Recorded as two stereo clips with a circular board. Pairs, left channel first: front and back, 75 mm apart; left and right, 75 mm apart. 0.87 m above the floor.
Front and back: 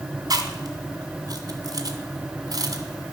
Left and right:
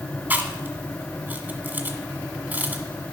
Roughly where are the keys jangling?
I don't hear keys jangling.